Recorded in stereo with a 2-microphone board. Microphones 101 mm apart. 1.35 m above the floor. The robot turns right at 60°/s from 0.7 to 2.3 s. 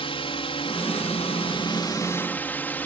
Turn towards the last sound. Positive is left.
turn(degrees=160)